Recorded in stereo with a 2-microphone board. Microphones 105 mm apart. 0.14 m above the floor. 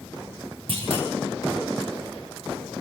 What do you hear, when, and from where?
0.7 s a clunk: 55° right (ahead or behind), 7.5 m